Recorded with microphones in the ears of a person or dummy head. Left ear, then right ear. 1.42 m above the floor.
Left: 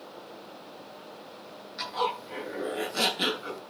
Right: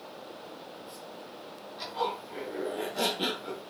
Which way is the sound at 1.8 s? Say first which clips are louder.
Left 3 dB; 70° left (ahead or behind).